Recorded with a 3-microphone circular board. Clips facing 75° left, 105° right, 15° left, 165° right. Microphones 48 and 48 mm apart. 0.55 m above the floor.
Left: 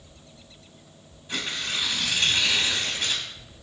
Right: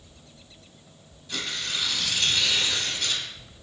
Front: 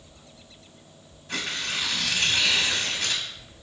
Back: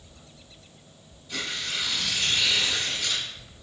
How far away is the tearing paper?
About 0.6 m.